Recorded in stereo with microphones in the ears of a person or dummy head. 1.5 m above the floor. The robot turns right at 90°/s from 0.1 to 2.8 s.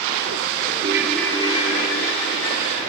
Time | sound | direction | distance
0.8 | a ringtone | 30° right | 1.2 m